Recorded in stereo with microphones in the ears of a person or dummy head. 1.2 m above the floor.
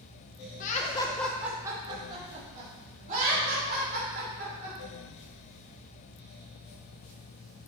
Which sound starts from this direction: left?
Laughter, at 0.6 s.